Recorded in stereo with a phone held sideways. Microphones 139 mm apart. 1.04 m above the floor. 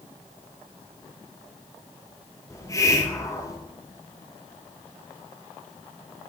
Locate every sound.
2.5 s a hiss: 25° left (ahead or behind), 0.9 m